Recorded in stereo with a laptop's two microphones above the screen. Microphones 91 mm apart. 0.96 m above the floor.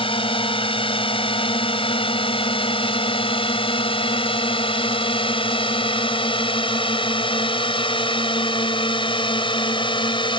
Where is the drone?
75° left (ahead or behind); by 10.4 s 65° left (ahead or behind).